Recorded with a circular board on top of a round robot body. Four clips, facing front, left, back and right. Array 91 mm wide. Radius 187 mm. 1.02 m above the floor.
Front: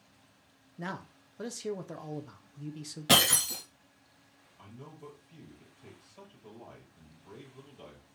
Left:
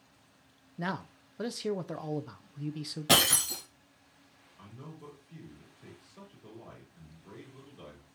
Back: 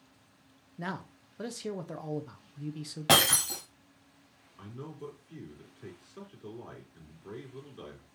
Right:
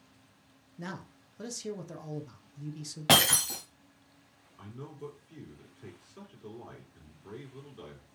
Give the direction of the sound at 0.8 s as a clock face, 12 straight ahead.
9 o'clock.